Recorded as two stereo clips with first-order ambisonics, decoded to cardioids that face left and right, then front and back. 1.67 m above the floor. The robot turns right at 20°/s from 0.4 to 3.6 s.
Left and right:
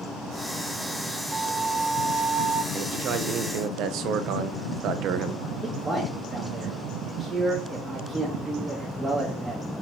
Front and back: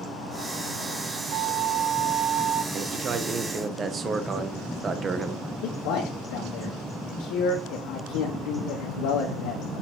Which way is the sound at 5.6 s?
10° right.